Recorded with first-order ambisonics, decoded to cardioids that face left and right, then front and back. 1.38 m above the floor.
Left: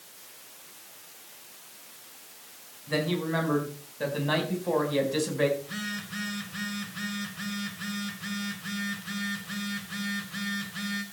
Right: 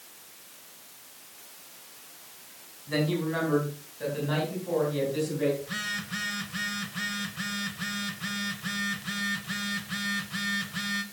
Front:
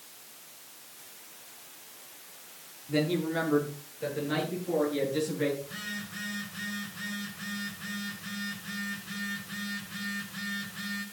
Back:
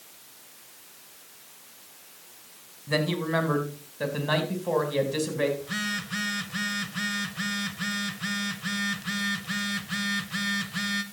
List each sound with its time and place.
2.9 s a man speaking: 170° left, 5.5 m; by 5.5 s 135° left, 5 m
5.6 s a phone buzzing: 165° right, 1.6 m